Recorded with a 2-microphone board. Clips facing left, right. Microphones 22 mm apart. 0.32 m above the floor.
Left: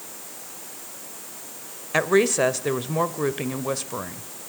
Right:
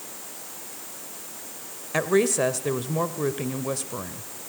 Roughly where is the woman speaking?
Centre.